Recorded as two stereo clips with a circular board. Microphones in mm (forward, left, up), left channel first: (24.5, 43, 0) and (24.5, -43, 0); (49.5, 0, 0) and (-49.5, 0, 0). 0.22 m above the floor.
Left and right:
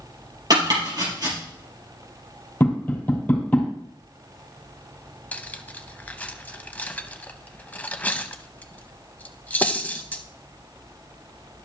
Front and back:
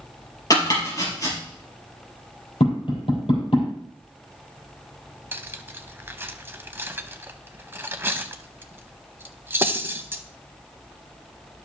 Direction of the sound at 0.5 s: 50° right.